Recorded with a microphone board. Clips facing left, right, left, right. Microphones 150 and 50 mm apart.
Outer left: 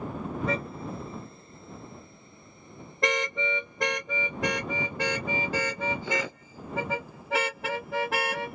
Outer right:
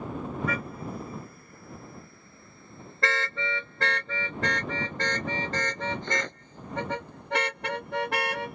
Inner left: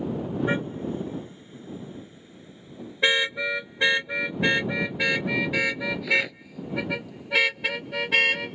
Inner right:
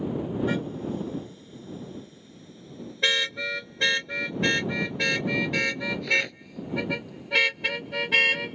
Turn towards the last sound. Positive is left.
turn(degrees=0)  # may be behind; listen again after turning